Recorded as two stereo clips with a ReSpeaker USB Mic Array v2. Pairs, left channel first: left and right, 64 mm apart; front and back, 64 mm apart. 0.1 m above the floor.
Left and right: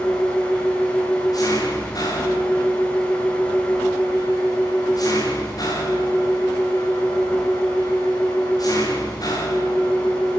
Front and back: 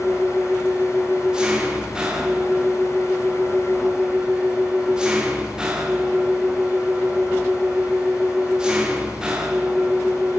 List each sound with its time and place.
0.0 s an engine running: 105° left, 9.5 m